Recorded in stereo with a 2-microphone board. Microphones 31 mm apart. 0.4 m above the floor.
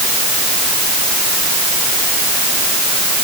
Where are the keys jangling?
No keys jangling in this recording.